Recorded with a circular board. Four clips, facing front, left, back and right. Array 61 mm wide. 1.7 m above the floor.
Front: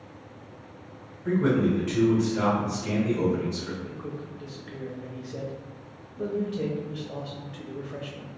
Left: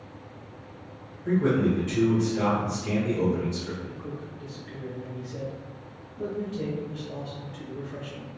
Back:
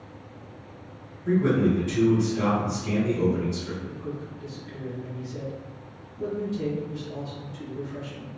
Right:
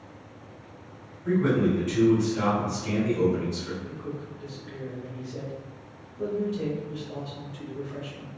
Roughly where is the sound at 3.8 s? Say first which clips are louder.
Right 1 dB, back 2 dB; ahead.